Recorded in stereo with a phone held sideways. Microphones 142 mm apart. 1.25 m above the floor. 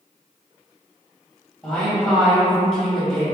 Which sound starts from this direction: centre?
A woman speaking, at 1.6 s.